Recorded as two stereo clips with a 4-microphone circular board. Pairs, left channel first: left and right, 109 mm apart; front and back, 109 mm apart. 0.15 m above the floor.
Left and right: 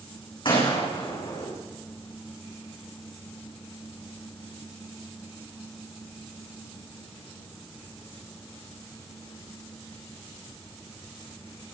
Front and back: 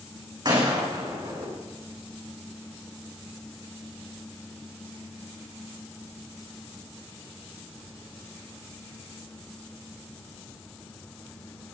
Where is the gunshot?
135° left, 6.5 m.